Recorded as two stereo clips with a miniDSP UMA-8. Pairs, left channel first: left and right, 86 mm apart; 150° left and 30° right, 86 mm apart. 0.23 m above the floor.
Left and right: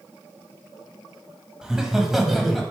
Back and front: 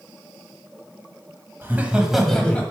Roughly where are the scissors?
I don't hear scissors.